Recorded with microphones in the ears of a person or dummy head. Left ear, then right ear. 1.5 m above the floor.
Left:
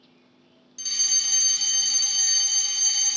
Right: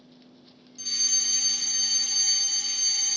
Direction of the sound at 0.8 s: 20° left (ahead or behind).